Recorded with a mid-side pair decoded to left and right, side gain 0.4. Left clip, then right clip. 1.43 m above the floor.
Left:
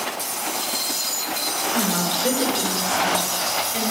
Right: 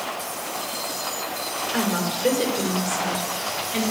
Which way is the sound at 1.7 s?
15° right.